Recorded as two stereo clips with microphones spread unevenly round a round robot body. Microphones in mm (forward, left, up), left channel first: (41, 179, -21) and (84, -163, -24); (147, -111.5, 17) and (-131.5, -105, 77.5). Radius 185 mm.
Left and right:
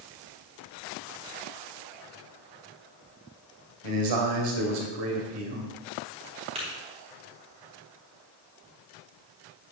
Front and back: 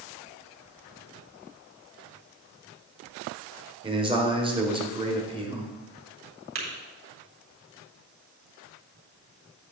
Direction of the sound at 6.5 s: 160° right.